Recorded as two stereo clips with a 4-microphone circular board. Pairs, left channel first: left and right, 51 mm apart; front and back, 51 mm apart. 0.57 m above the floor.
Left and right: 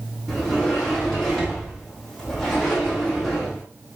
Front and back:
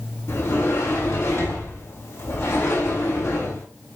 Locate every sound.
0.3 s a sliding door: 10° left, 5.5 m